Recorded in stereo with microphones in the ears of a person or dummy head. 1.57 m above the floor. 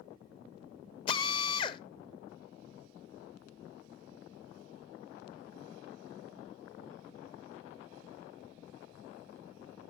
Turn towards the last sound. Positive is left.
turn(degrees=30)  # may be behind; listen again after turning